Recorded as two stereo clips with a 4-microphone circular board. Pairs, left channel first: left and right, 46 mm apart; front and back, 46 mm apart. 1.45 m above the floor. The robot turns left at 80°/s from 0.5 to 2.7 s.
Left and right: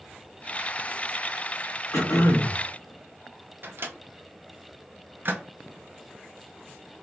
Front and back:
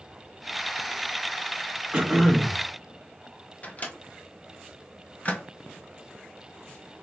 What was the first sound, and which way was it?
Throat clearing, 115° left.